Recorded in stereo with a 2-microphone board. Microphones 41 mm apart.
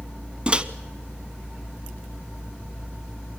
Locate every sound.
0.5 s a microwave: 25° right (ahead or behind), 0.9 m